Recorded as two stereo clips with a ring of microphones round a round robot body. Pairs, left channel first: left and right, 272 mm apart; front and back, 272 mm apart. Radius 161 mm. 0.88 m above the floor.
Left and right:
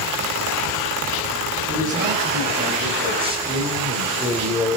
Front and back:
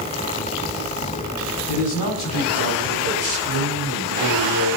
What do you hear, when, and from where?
1.7 s a man speaking: 30° right, 6.5 m; by 4.8 s straight ahead, 3 m